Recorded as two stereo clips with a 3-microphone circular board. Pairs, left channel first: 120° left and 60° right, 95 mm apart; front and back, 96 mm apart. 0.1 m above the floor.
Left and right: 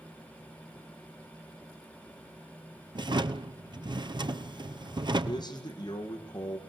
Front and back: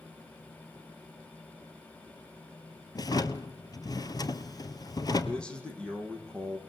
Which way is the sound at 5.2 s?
80° left.